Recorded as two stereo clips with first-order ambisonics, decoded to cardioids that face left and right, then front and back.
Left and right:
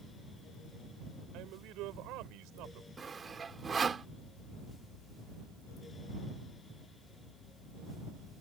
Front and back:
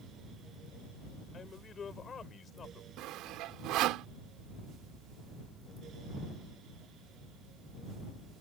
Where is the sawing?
160° right.